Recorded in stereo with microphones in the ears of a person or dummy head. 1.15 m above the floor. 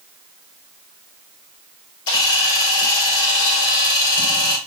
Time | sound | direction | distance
2.1 | a camera shutter | 60° left (ahead or behind) | 2.5 m